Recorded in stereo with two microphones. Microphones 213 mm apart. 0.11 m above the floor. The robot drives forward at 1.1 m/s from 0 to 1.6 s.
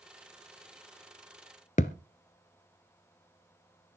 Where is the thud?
35° left (ahead or behind), 0.8 m.